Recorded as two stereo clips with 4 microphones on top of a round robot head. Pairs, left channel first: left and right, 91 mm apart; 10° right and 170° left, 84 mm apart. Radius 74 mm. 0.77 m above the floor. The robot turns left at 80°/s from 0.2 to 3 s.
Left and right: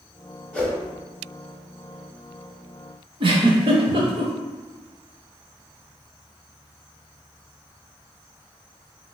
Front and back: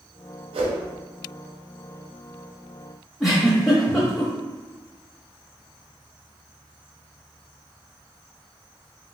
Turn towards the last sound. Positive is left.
turn(degrees=-100)